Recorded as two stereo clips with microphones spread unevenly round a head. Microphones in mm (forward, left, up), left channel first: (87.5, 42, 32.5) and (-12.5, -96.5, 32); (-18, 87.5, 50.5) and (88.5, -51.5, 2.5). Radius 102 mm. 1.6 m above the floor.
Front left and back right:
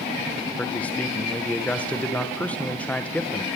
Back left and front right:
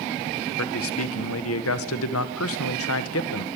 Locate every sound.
0.6 s a man speaking: 140° left, 1.7 m